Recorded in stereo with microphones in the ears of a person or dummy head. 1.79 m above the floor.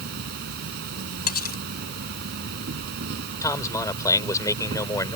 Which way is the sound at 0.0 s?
55° right (ahead or behind).